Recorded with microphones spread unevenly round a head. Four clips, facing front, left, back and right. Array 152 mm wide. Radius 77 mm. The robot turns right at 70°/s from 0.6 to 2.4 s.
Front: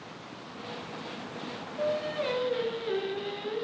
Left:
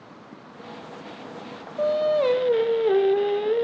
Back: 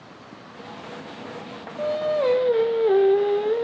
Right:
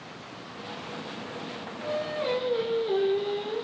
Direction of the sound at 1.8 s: 100° left.